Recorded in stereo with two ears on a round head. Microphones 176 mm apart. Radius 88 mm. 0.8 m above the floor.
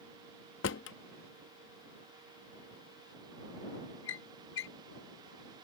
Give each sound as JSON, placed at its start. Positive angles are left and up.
{"t": 0.6, "sound": "a drawer", "side_deg": 65}